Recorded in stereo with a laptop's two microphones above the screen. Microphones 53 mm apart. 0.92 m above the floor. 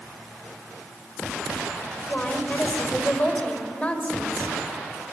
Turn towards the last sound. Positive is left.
turn(degrees=25)  # may be behind; listen again after turning